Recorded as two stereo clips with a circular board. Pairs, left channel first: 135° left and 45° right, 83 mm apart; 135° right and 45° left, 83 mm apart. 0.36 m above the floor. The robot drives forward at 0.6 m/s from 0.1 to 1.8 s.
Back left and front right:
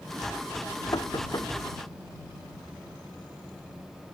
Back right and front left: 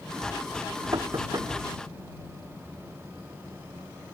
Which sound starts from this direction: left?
Knocking, at 0.9 s.